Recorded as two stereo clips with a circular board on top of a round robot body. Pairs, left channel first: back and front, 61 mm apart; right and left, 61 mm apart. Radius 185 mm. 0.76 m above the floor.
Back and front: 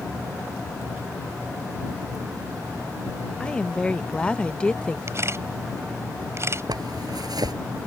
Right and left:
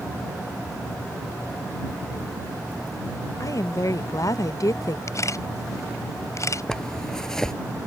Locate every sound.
3.4 s a woman speaking: 110° right
5.1 s a camera shutter: 50° right
6.7 s a zipper: 10° right